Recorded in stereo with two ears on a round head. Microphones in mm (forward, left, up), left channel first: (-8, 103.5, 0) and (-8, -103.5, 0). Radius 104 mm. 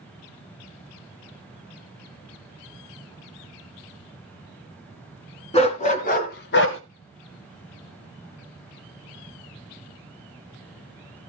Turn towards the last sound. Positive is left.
turn(degrees=60)  # may be behind; listen again after turning